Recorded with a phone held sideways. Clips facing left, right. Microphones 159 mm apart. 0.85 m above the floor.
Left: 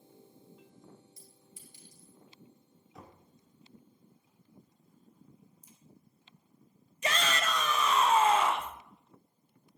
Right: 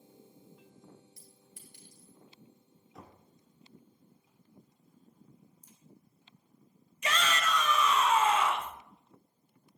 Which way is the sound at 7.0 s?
40° left (ahead or behind).